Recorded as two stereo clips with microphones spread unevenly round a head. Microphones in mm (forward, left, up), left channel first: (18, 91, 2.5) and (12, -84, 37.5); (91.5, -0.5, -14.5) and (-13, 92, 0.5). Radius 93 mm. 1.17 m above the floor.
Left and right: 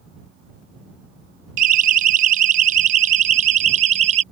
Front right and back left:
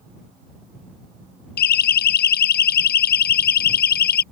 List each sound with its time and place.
1.6 s a siren: 50° right; by 4.2 s 40° right